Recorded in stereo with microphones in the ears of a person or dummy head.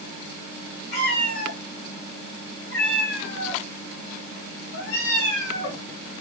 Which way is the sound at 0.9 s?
65° left (ahead or behind).